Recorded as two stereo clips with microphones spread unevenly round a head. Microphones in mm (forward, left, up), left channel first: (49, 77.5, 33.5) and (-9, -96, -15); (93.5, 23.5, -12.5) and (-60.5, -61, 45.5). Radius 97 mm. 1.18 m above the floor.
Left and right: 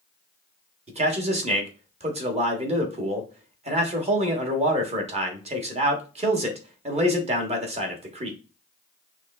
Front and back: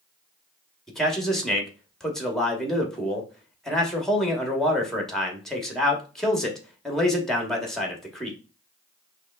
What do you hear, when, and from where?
0.9 s a man speaking: 55° right, 1.1 m